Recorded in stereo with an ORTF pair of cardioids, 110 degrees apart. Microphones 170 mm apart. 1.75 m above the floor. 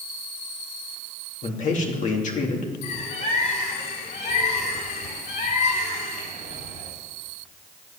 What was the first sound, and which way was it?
A man speaking, 50° left.